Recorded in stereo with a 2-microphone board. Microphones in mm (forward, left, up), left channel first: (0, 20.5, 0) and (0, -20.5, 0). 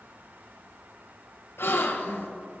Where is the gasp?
80° left, 2 m.